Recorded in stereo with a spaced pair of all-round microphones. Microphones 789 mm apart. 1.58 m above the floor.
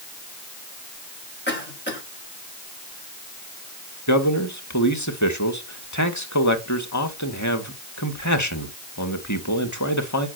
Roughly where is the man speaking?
Centre.